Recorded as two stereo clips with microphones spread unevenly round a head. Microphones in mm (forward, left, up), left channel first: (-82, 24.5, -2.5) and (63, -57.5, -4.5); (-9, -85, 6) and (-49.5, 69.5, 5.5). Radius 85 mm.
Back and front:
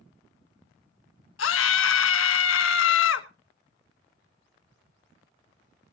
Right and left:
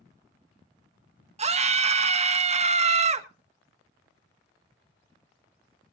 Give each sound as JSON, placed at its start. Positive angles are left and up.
{"t": 1.4, "sound": "a scream", "azimuth_deg": 155, "distance_m": 1.4}